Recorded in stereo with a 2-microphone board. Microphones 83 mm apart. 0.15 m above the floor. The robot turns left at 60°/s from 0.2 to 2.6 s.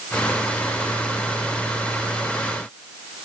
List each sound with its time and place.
Only background noise.